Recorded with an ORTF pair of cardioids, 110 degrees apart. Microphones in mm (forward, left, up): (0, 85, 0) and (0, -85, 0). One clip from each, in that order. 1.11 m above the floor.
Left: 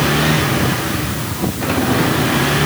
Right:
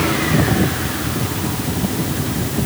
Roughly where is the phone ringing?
I don't hear a phone ringing.